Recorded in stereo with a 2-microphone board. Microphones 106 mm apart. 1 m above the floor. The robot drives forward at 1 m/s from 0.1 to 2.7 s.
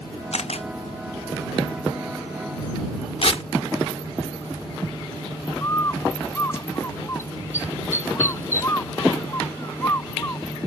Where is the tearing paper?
60° left (ahead or behind).